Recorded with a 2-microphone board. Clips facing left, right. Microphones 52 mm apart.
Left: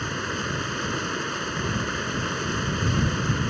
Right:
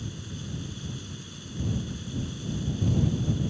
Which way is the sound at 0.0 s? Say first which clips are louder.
Left 12 dB; 70° left (ahead or behind).